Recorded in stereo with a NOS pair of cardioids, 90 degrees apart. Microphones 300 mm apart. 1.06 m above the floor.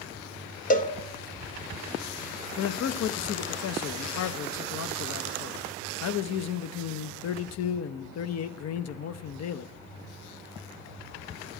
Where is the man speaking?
60° left, 0.7 m.